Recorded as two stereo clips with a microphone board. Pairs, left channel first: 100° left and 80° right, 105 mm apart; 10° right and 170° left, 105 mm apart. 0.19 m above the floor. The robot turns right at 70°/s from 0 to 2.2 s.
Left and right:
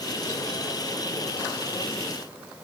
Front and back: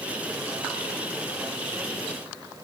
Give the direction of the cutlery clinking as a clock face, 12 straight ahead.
I don't hear cutlery clinking.